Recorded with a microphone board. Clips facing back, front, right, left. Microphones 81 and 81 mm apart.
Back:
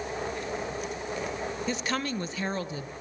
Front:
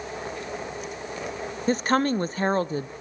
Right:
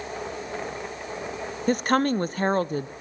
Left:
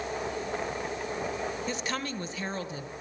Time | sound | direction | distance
1.7 | a woman speaking | 50° right | 0.7 m